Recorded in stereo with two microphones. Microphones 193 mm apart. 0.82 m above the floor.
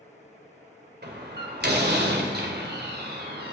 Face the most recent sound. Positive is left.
turn(degrees=-60)  # may be behind; listen again after turning